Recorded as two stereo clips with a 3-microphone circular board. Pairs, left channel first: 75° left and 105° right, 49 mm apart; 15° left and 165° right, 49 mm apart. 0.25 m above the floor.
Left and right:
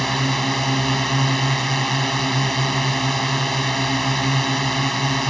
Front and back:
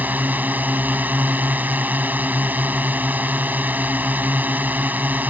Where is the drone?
160° left.